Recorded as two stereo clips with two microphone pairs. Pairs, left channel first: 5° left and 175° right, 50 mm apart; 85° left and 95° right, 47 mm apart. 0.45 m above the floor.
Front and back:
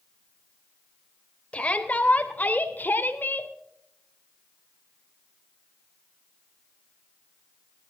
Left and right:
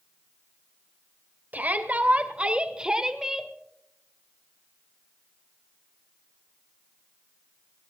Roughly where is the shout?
Ahead right.